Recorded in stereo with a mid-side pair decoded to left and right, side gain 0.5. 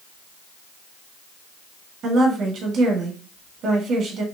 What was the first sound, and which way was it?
A woman speaking, 55° right.